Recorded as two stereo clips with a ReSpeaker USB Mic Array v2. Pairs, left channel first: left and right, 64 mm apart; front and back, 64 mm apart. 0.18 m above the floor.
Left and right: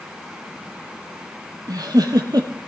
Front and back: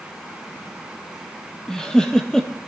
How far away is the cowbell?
I don't hear a cowbell.